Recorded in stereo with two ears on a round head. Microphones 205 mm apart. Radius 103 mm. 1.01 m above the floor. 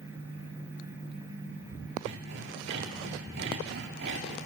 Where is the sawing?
50° right (ahead or behind), 2 m.